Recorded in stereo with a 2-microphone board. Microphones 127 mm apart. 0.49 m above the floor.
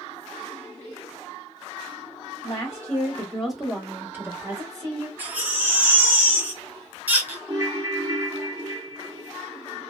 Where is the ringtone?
25° right (ahead or behind), 0.6 m.